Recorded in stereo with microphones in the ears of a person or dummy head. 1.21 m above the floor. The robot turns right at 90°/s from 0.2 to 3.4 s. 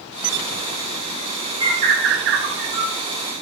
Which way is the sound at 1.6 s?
20° right (ahead or behind).